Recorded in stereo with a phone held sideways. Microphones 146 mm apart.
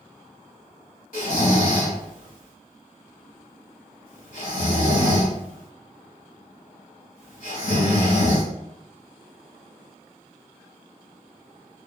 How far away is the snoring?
About 1.3 m.